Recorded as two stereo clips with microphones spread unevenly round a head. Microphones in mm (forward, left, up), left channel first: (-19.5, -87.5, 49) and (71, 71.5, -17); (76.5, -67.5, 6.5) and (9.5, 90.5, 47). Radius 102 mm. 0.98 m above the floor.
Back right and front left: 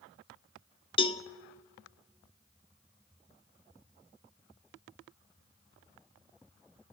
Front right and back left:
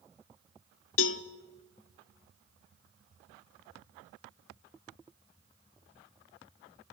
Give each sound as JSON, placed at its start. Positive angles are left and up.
{"t": 1.0, "sound": "a cowbell", "azimuth_deg": -65, "distance_m": 0.7}